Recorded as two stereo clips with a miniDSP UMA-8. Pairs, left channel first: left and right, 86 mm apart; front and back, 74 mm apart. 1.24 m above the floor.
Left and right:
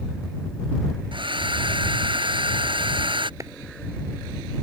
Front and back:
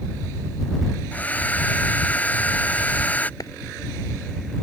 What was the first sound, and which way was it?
A hair dryer, 70° right.